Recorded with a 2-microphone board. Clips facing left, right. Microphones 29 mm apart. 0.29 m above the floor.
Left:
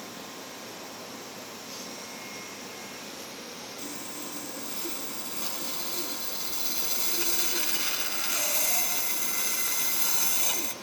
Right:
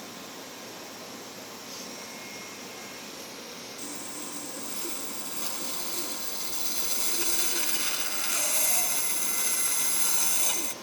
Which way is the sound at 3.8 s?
10° left (ahead or behind).